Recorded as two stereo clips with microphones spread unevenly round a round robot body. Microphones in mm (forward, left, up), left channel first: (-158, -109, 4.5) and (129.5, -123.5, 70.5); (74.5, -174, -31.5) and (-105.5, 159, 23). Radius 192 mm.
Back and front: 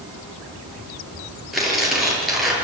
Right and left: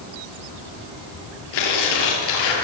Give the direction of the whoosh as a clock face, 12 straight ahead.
I don't hear a whoosh.